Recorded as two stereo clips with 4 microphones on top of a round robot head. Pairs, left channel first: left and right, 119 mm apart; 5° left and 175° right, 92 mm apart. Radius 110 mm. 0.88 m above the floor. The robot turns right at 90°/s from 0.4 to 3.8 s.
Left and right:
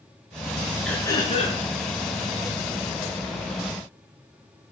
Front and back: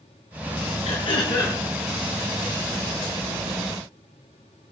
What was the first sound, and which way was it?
Throat clearing, 5° left.